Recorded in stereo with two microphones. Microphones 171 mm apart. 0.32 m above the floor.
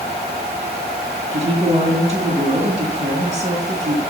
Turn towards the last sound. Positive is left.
turn(degrees=-30)  # may be behind; listen again after turning